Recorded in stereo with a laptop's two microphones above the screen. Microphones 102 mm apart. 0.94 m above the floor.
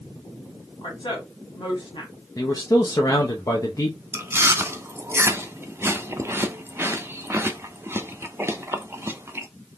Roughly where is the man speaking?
Left.